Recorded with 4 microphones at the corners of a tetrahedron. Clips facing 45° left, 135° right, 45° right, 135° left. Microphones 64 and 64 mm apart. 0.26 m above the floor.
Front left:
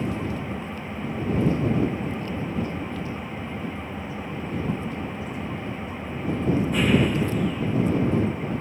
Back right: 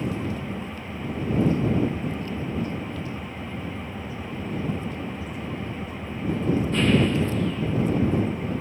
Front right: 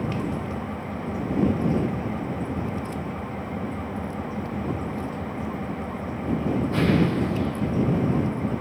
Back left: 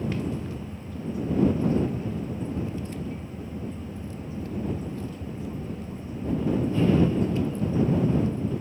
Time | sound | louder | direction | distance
0.0 | an engine running | front left 1 dB, front right 2 dB | 35° right | ?